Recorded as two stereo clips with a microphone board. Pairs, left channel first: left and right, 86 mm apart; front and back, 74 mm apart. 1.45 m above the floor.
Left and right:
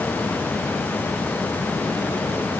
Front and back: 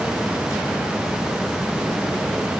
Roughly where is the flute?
I don't hear a flute.